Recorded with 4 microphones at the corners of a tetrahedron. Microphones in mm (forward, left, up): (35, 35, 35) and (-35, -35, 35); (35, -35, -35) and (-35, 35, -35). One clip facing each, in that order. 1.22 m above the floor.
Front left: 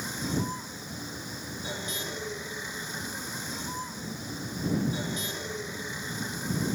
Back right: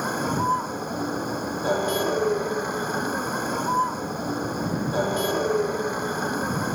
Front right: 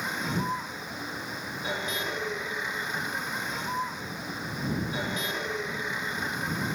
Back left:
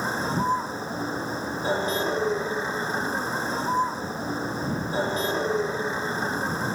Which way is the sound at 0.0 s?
165° right.